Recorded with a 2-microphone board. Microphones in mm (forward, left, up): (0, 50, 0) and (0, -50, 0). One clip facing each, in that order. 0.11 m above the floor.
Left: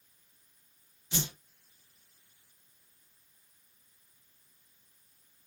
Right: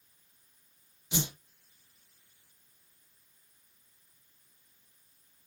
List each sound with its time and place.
1.1 s a whoosh: 15° right (ahead or behind), 0.9 m